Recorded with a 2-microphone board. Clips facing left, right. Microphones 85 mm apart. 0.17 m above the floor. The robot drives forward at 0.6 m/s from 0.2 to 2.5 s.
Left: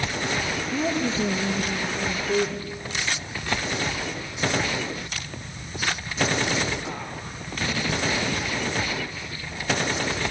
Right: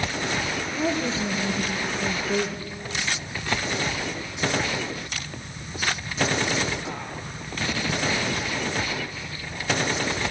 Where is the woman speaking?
45° left (ahead or behind), 3.5 m; by 2.7 s 55° left (ahead or behind), 3 m.